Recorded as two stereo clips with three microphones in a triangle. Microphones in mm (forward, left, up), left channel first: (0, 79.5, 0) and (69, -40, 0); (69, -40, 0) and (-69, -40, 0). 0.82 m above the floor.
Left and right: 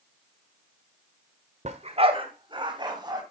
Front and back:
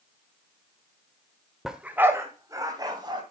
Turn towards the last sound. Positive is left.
turn(degrees=-120)